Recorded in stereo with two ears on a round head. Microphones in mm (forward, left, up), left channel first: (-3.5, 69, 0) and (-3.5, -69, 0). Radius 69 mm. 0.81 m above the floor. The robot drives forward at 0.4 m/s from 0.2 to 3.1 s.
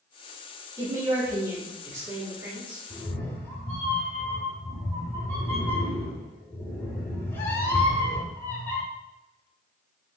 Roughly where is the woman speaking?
Right.